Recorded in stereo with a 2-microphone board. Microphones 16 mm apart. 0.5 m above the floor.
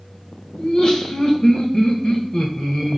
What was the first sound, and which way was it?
Laughter, 45° left (ahead or behind).